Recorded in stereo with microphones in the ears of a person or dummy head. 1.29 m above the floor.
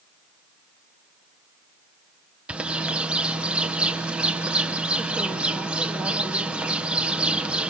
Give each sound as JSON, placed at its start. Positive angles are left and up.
{"t": 2.5, "sound": "a bird", "side_deg": -5, "distance_m": 0.8}